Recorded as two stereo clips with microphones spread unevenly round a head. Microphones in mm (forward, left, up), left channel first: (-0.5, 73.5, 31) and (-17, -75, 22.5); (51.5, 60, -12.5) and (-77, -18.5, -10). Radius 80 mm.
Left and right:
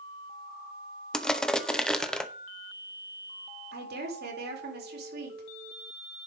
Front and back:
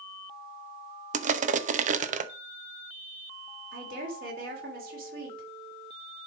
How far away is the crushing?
About 0.8 m.